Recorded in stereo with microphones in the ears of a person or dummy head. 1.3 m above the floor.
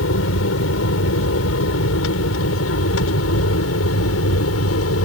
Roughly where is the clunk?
No clunk in this recording.